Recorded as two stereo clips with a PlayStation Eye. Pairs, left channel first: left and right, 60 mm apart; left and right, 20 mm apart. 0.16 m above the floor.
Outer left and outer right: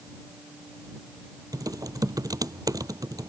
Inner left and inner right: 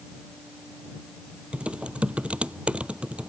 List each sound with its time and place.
1.5 s typing on a keyboard: 80° right